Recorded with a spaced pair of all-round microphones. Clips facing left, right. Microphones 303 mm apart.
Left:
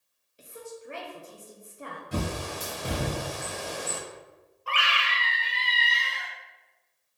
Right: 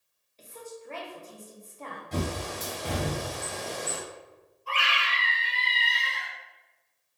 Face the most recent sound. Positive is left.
turn(degrees=80)